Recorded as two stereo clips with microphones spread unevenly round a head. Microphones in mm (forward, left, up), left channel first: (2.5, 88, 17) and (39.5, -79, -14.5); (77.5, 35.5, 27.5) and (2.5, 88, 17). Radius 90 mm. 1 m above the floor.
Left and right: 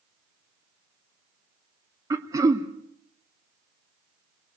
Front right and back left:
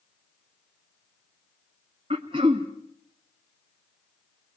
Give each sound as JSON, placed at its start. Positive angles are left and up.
{"t": 2.1, "sound": "throat clearing", "azimuth_deg": -155, "distance_m": 0.9}